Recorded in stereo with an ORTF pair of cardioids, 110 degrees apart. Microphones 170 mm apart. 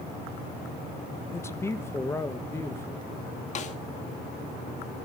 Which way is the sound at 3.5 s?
40° left.